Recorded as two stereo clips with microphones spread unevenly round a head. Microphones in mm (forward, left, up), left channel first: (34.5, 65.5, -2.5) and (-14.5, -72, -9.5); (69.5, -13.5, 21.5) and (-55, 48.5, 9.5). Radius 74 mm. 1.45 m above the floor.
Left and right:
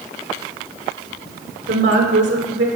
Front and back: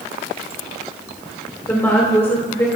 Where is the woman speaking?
105° right, 2.5 m.